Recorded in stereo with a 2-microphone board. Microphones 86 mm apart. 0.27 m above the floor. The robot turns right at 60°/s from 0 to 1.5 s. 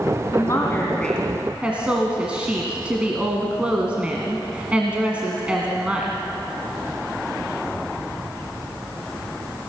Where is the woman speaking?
125° left, 2 m; by 6.2 s 165° right, 2 m.